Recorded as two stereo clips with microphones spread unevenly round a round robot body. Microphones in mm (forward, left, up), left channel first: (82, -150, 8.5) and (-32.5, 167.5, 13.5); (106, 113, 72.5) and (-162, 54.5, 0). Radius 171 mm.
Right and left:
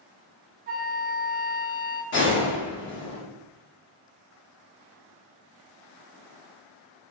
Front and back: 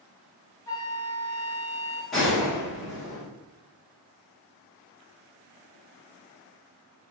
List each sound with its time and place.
0.7 s a flute: 110° left, 1.0 m
2.1 s a gunshot: 100° right, 1.3 m